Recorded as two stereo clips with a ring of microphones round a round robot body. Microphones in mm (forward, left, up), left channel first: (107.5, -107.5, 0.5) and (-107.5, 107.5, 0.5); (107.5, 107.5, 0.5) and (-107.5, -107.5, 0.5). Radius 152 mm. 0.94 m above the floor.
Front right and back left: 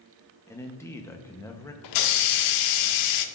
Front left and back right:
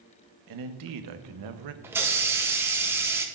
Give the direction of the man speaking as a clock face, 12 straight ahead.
4 o'clock.